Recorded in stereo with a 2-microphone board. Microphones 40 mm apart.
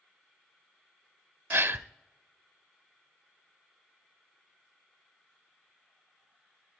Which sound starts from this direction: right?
A gasp, at 1.5 s.